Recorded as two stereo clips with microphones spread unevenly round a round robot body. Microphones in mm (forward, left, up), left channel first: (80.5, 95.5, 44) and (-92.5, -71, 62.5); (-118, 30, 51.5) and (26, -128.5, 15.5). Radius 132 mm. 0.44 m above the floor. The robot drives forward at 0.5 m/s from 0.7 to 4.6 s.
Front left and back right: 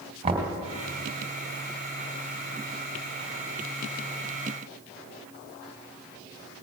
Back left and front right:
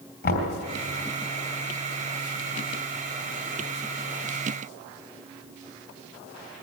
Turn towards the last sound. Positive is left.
turn(degrees=165)